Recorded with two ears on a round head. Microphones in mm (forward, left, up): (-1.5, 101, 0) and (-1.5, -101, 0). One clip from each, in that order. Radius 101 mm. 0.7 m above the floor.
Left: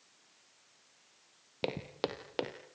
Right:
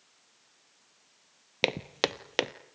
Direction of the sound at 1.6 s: 50° right (ahead or behind).